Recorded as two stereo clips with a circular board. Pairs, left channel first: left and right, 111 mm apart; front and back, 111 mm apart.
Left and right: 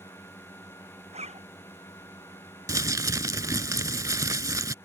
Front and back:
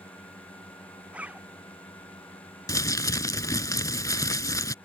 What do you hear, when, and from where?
0.0 s a drone: 35° left
1.1 s a zipper: 100° right
2.7 s crumpling: 45° right